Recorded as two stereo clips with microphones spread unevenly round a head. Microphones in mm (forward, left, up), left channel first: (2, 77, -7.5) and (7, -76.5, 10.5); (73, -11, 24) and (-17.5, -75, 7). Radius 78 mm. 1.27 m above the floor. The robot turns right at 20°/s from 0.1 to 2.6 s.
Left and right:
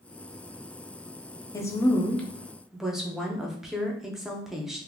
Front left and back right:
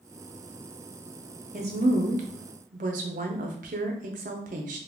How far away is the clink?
I don't hear a clink.